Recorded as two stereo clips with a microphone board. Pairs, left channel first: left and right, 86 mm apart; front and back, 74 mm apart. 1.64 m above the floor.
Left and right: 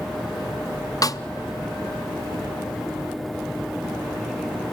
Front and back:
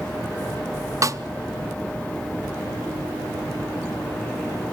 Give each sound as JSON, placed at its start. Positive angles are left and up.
{"t": 1.0, "sound": "a snare drum", "azimuth_deg": 135, "distance_m": 0.5}